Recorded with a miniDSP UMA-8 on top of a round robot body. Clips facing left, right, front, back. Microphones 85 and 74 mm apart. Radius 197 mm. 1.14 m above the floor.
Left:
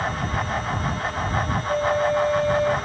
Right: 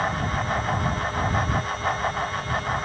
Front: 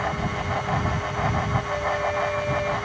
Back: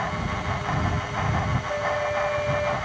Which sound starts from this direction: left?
A flute, at 1.7 s.